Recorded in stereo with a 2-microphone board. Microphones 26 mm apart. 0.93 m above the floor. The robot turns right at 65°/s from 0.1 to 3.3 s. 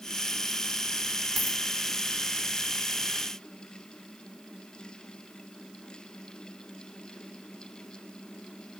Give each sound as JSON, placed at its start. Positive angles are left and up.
{"t": 1.4, "sound": "a dropped coin", "side_deg": -5, "distance_m": 2.5}